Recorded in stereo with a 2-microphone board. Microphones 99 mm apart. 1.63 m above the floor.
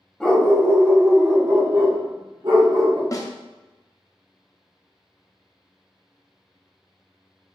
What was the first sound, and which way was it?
A dog barking, 5° left (ahead or behind).